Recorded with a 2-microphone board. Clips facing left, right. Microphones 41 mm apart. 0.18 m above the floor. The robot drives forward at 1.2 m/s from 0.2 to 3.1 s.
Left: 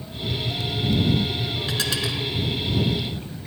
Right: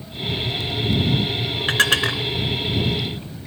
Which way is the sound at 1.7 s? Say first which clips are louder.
Right 10 dB; 55° right (ahead or behind).